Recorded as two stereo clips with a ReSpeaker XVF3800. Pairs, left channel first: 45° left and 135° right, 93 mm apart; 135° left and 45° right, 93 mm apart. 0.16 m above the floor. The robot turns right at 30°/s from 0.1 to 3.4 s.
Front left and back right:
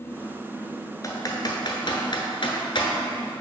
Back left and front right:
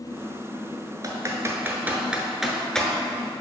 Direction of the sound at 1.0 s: Straight ahead.